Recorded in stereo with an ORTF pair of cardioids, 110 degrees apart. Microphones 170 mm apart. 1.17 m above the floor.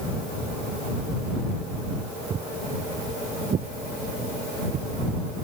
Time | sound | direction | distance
2.3 | footsteps | 45° right | ?